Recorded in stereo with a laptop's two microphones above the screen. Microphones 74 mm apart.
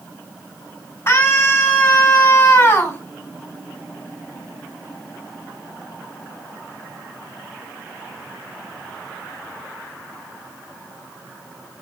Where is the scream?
40° left (ahead or behind), 5 m.